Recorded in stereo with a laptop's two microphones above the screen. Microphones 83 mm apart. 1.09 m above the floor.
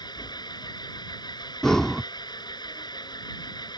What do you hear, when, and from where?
0.0 s an engine running: 60° left (ahead or behind)
1.6 s breathing: 5° left (ahead or behind)